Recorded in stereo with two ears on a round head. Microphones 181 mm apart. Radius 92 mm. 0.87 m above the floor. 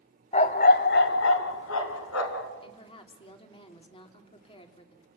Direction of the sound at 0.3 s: 30° left (ahead or behind).